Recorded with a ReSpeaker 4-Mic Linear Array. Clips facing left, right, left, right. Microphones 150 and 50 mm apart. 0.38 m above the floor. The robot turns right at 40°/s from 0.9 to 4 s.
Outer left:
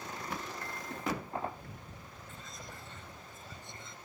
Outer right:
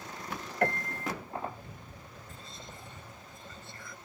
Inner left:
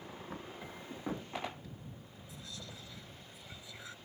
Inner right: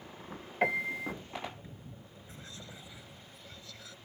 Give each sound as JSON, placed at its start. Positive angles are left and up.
{"t": 0.6, "sound": "a piano", "side_deg": -75}
{"t": 2.3, "sound": "whispering", "azimuth_deg": -40}